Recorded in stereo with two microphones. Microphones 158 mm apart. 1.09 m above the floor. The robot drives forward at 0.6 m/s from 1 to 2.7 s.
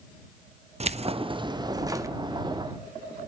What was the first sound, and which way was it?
Keys jangling, 45° right (ahead or behind).